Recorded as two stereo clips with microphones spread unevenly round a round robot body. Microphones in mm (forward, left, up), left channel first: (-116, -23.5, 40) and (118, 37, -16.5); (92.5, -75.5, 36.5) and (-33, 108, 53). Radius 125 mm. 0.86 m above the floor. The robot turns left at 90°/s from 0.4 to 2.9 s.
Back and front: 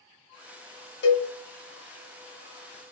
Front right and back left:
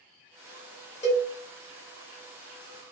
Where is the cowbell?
120° right, 1.2 m; by 1.3 s 145° right, 1.2 m.